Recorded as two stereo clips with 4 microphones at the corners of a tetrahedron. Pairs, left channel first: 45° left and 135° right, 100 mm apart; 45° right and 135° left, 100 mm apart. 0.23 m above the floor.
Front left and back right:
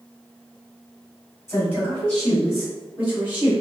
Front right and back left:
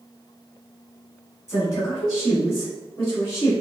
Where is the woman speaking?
5° right, 2.0 m; by 3.5 s 80° right, 1.8 m.